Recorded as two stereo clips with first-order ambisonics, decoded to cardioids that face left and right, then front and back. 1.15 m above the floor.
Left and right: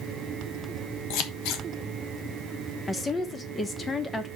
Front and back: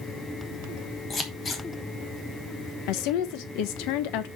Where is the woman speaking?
15° left, 0.9 m.